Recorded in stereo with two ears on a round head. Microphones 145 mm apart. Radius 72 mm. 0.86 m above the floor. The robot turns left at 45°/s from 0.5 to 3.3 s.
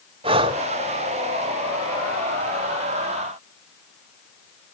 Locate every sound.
0.2 s breathing: 35° right (ahead or behind), 1.7 m; by 0.6 s 30° right (ahead or behind), 1.7 m